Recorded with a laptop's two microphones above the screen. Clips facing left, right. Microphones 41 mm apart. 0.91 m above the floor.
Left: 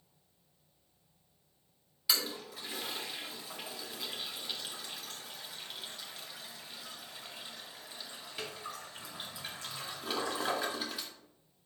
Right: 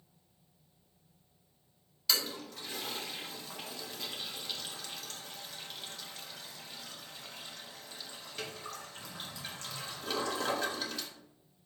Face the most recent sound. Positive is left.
turn(degrees=10)  # may be behind; listen again after turning